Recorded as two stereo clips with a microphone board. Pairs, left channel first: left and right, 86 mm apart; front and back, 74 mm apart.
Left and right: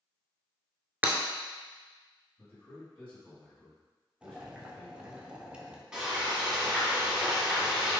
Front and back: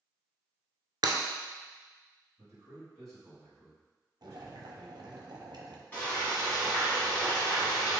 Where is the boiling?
165° right, 0.7 m.